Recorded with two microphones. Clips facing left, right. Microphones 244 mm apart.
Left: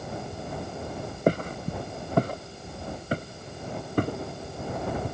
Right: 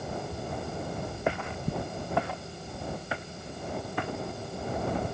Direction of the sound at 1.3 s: 40° left (ahead or behind).